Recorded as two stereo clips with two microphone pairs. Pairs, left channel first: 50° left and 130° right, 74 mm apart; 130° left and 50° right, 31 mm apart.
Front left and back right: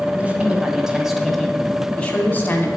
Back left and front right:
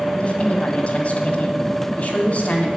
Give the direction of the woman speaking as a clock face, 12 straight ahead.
6 o'clock.